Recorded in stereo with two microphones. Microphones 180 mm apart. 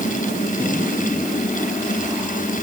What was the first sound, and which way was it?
Only background noise.